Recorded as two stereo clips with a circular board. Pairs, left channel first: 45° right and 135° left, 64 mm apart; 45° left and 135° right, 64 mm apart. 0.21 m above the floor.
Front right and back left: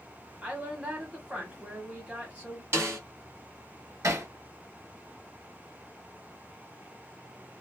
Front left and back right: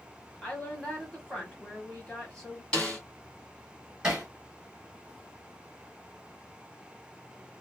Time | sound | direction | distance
0.4 | a woman speaking | 100° left | 1.2 m
2.7 | a snare drum | 115° left | 1.9 m
4.0 | hammering | 150° left | 1.9 m